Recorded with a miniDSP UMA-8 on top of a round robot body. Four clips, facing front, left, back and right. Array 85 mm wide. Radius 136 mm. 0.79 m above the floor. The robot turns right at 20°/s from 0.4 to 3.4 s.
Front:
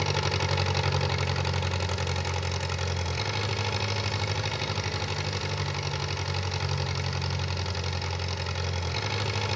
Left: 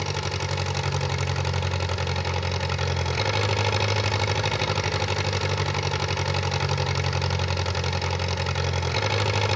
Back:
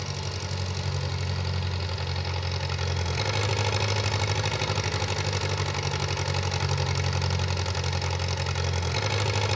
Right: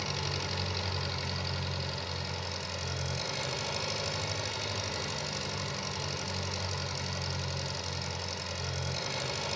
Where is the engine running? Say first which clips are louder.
Left 7 dB, front 7 dB; 35° left, 0.8 m; by 9.6 s 95° left, 0.8 m.